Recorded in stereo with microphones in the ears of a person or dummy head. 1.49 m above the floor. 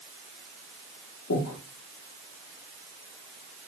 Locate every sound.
1.3 s breathing: 65° left (ahead or behind), 0.7 m